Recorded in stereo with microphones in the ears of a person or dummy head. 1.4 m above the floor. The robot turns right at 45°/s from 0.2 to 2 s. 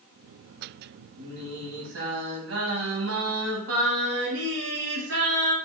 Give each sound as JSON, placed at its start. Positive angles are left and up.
{"t": 1.2, "sound": "singing", "azimuth_deg": -120, "distance_m": 1.8}